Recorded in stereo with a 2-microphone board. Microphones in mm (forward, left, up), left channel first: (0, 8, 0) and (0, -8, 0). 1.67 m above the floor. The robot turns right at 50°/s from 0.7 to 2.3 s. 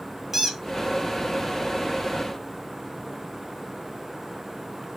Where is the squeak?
20° right (ahead or behind), 1.8 m.